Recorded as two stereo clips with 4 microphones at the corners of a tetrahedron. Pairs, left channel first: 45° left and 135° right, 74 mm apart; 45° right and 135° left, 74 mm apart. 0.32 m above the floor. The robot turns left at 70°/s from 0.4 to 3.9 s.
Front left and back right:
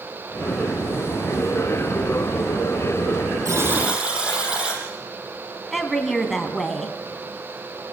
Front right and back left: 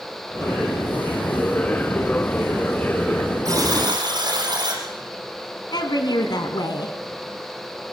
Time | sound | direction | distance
3.5 | a buzzer | straight behind | 6 m
5.7 | a woman speaking | 45° right | 2.5 m